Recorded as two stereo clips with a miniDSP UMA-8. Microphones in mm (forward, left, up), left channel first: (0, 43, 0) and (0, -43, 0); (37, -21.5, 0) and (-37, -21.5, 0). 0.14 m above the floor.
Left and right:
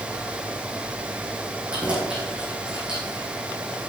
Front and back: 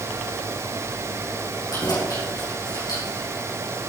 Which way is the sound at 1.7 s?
15° right.